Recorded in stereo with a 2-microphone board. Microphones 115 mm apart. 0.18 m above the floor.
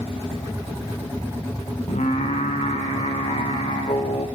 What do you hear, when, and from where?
1.9 s singing: 80° left, 3 m